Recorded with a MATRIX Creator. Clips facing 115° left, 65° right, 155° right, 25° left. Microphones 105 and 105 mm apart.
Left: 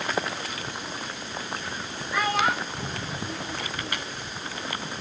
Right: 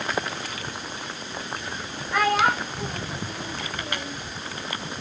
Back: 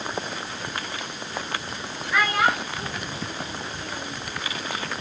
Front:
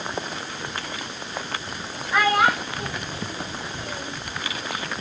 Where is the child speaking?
45° right, 9 m.